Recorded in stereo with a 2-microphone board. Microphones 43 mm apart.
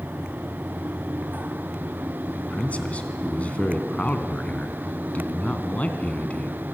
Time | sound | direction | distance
2.4 | a man speaking | 30° left (ahead or behind) | 3 m